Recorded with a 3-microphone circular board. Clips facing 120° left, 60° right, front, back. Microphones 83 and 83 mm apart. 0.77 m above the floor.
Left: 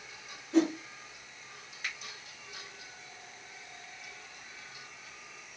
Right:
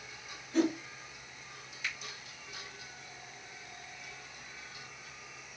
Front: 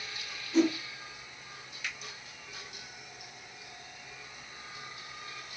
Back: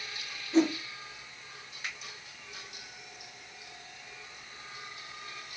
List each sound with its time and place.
0.5 s a whoosh: 125° left, 1.0 m
1.8 s a finger snap: 145° left, 1.6 m